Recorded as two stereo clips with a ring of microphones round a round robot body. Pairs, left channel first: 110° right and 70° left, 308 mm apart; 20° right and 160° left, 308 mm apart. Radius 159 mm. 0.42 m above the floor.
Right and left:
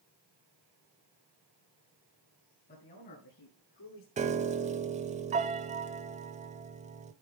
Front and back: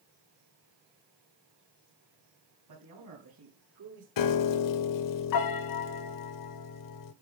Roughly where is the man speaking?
Behind.